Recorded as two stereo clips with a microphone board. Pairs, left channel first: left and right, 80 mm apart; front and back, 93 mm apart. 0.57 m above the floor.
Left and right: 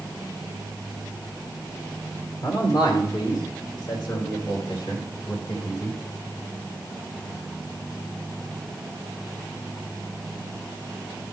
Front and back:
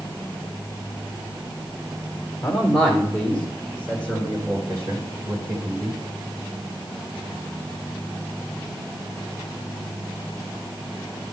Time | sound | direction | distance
2.4 | a man speaking | 90° left | 2 m